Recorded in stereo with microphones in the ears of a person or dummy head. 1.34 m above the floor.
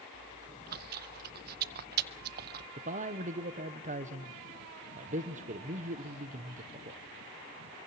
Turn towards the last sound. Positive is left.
turn(degrees=-40)  # may be behind; listen again after turning